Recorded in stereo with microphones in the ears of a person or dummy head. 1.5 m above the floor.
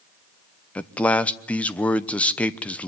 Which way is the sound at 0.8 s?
5° left (ahead or behind).